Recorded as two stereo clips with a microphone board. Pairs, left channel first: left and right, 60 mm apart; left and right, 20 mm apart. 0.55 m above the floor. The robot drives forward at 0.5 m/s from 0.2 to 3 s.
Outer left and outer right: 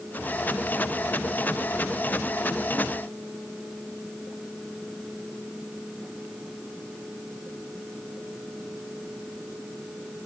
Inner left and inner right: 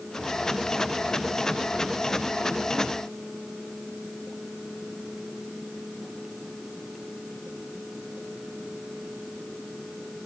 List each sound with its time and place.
Only background noise.